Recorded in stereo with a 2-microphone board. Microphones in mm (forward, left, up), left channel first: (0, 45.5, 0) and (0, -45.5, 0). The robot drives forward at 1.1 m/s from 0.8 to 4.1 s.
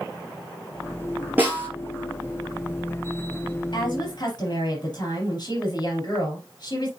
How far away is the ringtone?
I don't hear a ringtone.